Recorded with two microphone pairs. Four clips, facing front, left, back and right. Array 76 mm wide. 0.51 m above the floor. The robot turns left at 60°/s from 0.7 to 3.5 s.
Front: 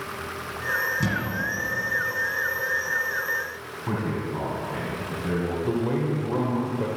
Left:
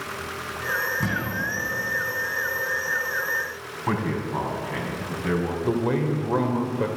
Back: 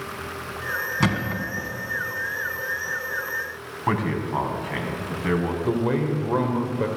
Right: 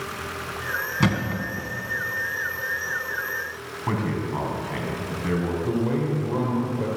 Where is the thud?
145° right, 2 m; by 1.7 s 175° left, 2 m.